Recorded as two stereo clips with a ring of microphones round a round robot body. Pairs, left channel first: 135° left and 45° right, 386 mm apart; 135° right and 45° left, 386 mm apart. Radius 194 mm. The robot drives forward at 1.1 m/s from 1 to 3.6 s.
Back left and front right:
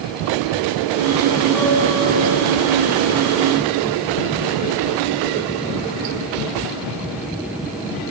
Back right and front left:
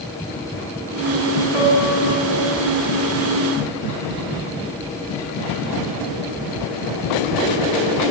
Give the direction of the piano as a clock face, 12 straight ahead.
5 o'clock.